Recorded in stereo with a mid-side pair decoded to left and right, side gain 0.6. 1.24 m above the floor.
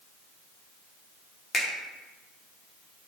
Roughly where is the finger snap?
Ahead left.